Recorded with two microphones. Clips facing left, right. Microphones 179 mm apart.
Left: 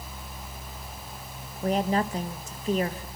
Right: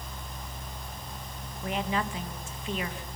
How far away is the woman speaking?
About 1.6 m.